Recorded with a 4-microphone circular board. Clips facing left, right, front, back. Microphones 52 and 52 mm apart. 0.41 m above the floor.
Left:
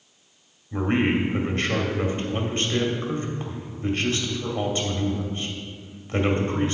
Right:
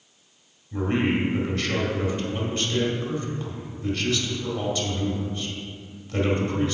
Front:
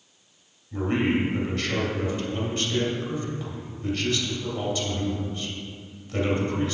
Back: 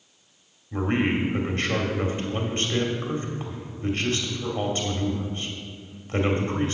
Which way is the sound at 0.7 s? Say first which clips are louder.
Left 1 dB, even; 135° left.